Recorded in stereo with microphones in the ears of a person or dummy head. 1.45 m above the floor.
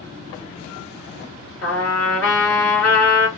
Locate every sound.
1.6 s a trumpet: 10° left (ahead or behind), 2 m